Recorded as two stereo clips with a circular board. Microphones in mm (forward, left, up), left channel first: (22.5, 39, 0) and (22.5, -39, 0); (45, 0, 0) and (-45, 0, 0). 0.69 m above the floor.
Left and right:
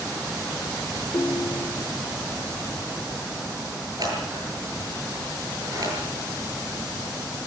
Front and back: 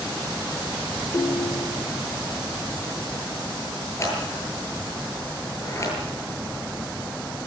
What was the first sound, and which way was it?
A ringtone, 50° left.